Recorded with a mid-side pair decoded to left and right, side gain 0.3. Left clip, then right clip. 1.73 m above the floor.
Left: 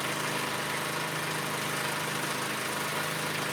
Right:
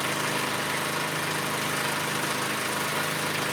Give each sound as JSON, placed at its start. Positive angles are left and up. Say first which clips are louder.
{"t": 0.0, "sound": "an engine running", "louder": "right 4 dB", "azimuth_deg": -40, "distance_m": 1.3}